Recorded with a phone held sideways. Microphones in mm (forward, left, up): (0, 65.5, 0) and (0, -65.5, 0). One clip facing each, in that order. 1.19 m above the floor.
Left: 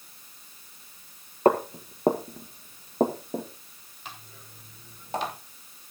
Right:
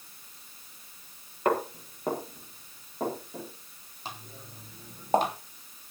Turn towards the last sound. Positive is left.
turn(degrees=-50)  # may be behind; listen again after turning